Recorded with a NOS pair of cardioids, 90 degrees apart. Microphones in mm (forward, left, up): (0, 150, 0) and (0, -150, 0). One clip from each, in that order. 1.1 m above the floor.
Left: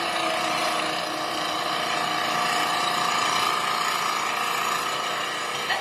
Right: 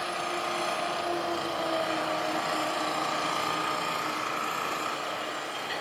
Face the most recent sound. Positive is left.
turn(degrees=65)